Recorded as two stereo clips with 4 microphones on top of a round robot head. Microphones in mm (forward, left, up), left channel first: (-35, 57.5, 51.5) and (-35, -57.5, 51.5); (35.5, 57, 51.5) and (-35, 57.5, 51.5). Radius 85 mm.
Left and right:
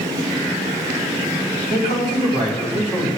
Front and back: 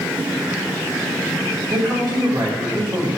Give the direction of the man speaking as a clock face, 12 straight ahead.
3 o'clock.